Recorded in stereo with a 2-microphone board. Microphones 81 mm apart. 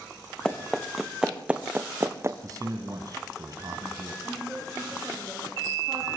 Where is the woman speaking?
5° left (ahead or behind), 9 m.